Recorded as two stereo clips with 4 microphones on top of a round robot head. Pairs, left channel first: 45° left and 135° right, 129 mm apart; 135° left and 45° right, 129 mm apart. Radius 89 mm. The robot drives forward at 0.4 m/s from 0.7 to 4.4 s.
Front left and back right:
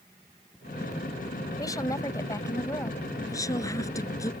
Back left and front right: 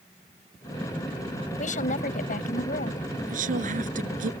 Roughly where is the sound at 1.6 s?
Left.